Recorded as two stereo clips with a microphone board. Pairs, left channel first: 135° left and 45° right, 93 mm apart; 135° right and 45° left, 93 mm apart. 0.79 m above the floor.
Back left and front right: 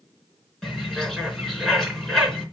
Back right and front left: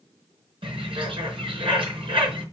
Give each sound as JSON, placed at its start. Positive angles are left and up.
{"t": 0.6, "sound": "a bird", "azimuth_deg": 50, "distance_m": 4.5}